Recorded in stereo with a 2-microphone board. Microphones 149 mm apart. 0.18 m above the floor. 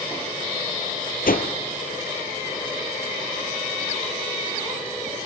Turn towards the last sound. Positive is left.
turn(degrees=75)  # may be behind; listen again after turning